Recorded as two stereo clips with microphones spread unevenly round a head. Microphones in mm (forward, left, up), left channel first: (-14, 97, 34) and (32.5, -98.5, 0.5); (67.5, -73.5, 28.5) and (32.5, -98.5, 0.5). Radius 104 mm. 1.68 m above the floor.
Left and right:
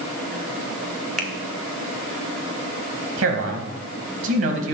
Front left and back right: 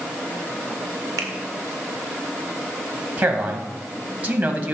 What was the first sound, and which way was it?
A finger snap, 170° right.